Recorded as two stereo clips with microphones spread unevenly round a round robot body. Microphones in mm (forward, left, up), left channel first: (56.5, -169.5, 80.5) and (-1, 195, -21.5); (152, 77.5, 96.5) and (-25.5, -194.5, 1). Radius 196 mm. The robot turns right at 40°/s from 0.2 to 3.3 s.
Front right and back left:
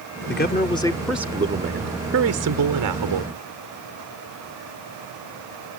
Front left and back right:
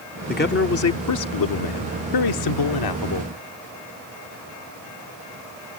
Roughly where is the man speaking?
Ahead.